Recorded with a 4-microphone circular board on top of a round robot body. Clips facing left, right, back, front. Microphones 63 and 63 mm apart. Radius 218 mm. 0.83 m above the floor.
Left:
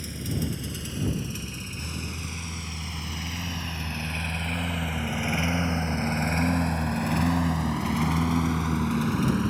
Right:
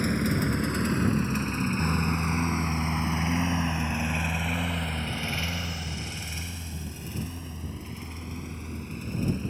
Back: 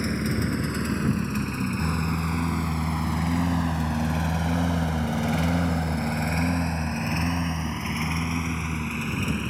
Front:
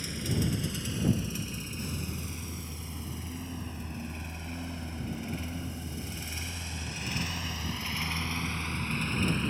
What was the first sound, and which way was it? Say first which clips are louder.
A lawn mower: right 6 dB, back 7 dB; 130° right.